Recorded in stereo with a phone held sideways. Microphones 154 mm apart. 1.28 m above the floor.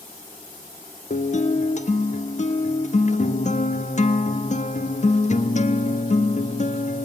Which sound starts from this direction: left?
A guitar, at 1.1 s.